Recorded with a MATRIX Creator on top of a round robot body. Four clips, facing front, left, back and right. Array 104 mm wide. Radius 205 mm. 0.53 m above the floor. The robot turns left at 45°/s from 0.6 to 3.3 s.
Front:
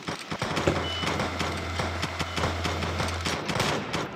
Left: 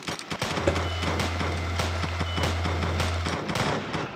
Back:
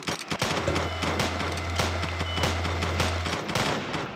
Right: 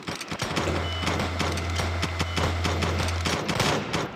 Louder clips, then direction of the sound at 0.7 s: Left 6 dB, front 4 dB; 30° left.